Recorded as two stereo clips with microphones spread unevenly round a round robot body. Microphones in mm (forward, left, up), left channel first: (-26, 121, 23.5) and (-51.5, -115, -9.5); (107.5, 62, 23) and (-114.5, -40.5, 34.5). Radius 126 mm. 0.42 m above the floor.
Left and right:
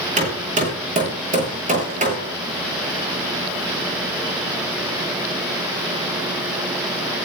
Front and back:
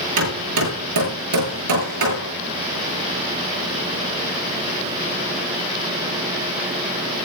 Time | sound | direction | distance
0.2 | hammering | 155° right | 8 m